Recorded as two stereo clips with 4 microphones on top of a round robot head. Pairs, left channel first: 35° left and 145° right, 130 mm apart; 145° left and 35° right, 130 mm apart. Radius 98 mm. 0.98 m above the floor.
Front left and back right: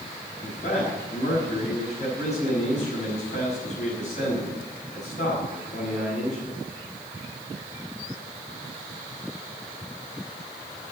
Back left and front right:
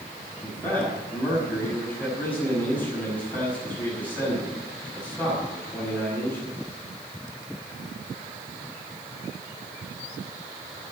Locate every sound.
0.4 s a man speaking: 65° left, 6 m